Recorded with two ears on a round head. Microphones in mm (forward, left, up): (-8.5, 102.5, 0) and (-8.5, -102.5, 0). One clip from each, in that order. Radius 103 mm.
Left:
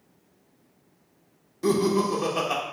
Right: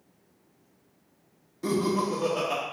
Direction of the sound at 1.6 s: 10° left (ahead or behind).